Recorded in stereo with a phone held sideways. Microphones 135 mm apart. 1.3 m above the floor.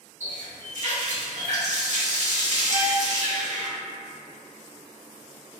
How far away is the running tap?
About 1.3 m.